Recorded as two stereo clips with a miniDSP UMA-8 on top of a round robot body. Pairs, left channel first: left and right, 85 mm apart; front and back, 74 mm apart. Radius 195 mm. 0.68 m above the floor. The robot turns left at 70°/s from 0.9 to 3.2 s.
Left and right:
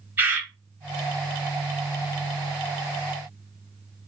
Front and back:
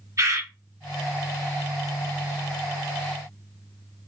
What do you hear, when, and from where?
0.2 s a bird: 150° right, 1.3 m